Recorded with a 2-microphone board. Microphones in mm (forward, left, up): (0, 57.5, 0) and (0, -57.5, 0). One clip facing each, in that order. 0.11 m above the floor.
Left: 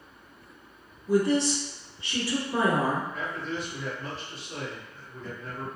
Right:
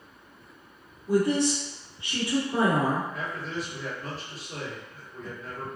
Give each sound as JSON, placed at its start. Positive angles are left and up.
{"t": 1.1, "sound": "a woman speaking", "side_deg": -15, "distance_m": 1.3}
{"t": 3.1, "sound": "a man speaking", "side_deg": 0, "distance_m": 1.8}